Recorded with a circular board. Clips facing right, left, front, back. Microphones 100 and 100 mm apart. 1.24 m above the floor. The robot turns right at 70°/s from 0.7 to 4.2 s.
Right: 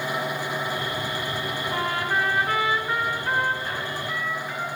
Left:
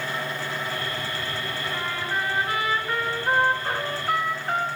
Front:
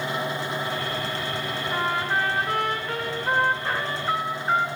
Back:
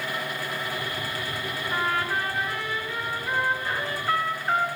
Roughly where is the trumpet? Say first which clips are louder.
Right 5 dB, front 1 dB; right.